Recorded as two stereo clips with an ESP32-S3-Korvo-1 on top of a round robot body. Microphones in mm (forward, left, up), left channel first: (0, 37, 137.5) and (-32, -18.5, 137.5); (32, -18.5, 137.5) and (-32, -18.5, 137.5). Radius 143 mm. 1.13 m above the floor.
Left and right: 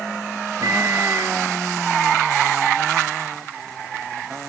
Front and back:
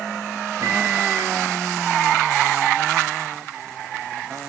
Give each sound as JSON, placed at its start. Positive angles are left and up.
{"t": 0.6, "sound": "a microwave", "azimuth_deg": -145, "distance_m": 1.8}